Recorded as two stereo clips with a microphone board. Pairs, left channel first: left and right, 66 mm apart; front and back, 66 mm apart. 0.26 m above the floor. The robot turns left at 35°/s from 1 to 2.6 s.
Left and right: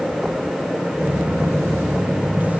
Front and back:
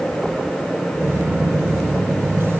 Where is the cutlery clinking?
I don't hear cutlery clinking.